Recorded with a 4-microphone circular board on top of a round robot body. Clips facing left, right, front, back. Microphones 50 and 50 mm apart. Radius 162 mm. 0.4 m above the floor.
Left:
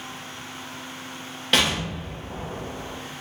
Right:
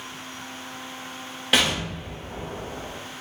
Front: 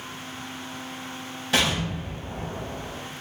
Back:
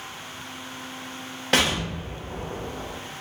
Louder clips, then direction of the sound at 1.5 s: Even, back 1 dB; 170° right.